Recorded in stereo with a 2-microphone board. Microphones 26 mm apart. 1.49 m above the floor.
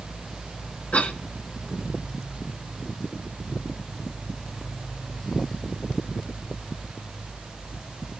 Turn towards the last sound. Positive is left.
turn(degrees=65)  # may be behind; listen again after turning